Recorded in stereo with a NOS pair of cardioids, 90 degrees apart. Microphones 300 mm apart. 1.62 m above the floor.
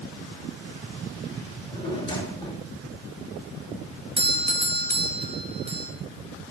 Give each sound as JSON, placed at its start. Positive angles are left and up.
{"t": 1.5, "sound": "a drawer", "azimuth_deg": 15, "distance_m": 2.0}
{"t": 4.2, "sound": "a doorbell", "azimuth_deg": -20, "distance_m": 1.2}